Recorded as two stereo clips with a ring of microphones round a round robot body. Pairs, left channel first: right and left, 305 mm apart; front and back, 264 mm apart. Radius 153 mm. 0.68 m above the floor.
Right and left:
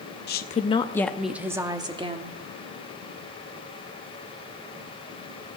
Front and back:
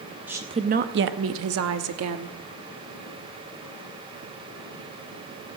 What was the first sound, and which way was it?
A woman speaking, 100° right.